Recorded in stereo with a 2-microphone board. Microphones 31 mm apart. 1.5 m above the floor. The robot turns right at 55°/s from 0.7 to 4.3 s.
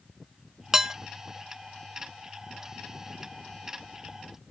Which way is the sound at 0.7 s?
15° right (ahead or behind).